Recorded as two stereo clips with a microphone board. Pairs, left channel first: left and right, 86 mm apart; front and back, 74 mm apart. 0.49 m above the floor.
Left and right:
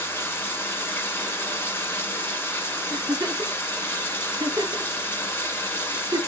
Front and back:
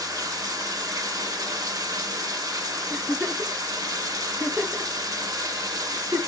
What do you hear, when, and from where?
0.0 s running water: 150° left, 0.9 m
2.9 s a giggle: 115° right, 3 m